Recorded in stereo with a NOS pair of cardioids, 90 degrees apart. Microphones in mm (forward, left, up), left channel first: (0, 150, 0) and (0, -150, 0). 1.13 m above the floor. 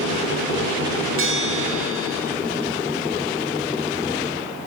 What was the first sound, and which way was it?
A bell, 45° right.